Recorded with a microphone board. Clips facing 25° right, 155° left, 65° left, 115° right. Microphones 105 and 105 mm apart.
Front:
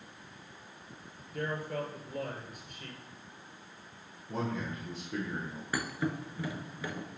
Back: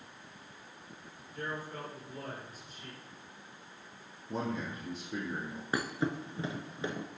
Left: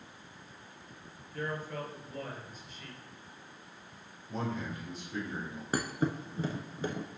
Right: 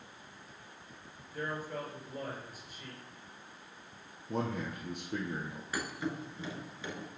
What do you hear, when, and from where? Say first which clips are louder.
1.3 s a man speaking: front 5 dB, left 1 dB; 30° right, 2.5 m
4.3 s a man speaking: front 1 dB, right 1 dB; 130° right, 2 m
5.7 s a thud: back 1 dB, left 5 dB; 100° left, 0.8 m